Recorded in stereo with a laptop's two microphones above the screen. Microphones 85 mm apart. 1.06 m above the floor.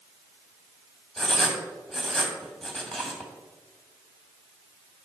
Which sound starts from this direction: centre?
Writing, at 1.2 s.